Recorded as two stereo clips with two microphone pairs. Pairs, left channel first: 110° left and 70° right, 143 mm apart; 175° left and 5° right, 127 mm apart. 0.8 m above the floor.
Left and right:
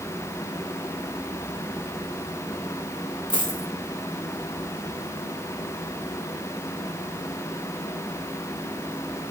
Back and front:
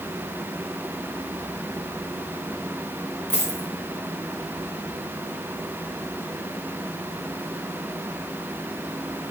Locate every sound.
3.3 s a dropped coin: 165° left, 3 m